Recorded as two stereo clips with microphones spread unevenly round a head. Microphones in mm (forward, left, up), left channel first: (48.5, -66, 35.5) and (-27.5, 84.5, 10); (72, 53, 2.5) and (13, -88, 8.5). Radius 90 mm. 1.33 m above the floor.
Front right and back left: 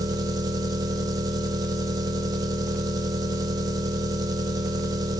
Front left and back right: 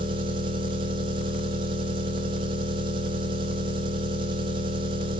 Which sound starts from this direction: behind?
An engine running, at 0.0 s.